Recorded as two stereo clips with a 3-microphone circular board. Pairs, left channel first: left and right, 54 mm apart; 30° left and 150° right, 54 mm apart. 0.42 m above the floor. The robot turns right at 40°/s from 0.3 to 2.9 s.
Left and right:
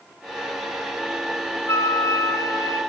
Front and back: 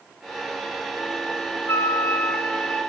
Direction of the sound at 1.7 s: 60° left.